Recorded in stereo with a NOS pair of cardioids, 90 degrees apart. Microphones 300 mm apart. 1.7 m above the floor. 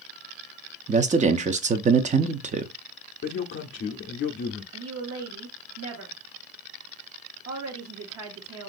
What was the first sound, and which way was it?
A man speaking, 25° right.